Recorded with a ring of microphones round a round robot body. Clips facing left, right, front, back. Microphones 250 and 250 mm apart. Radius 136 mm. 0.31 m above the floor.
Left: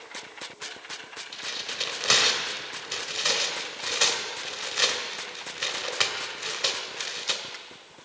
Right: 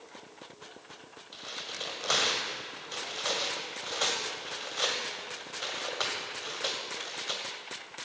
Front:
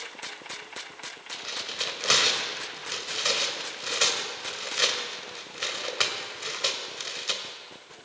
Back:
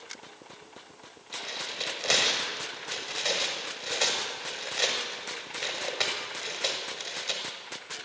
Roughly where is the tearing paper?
Ahead left.